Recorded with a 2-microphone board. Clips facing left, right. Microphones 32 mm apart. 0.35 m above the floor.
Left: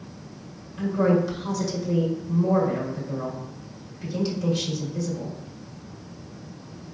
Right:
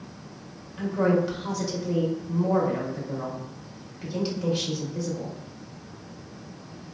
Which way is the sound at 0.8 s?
15° right (ahead or behind).